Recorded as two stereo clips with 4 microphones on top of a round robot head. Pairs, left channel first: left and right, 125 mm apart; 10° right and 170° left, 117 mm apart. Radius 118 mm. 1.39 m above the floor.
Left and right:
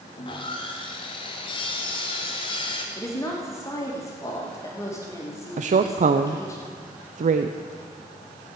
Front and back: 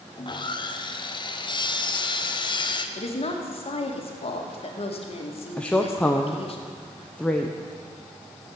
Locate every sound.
0.2 s sawing: 35° left, 1.0 m
3.0 s a woman speaking: 20° left, 2.0 m
5.6 s a woman speaking: 90° right, 0.6 m